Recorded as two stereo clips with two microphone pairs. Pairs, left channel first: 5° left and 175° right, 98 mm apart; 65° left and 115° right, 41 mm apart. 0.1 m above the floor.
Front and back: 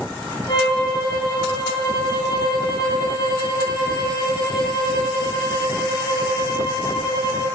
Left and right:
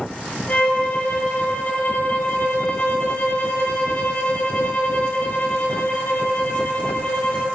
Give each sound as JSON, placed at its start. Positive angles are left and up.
{"t": 0.5, "sound": "a violin", "azimuth_deg": 35, "distance_m": 2.5}